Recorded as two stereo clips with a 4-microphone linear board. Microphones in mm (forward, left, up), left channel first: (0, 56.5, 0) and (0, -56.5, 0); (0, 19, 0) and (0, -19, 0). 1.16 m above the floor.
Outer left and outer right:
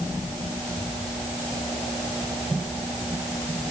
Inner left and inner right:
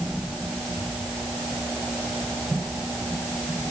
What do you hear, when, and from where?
Only background noise.